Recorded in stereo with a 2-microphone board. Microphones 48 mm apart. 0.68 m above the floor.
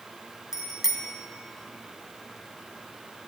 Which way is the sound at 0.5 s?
10° right (ahead or behind).